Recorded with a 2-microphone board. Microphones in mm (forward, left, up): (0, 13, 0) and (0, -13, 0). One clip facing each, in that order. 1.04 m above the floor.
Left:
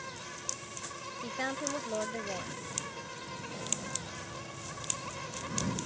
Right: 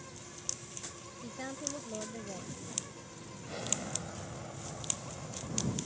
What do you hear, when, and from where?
0.0 s an insect: 60° left (ahead or behind)
1.2 s a woman speaking: 45° left (ahead or behind)
3.5 s an explosion: 30° right (ahead or behind)